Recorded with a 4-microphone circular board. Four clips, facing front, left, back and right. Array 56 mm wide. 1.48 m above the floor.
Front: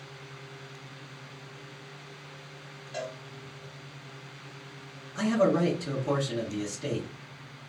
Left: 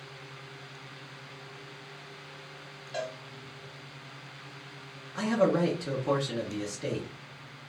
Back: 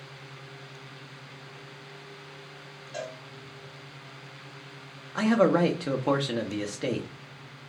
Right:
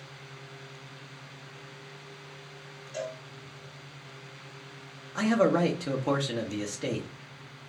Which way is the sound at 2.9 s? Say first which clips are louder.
Even, even; 90° left.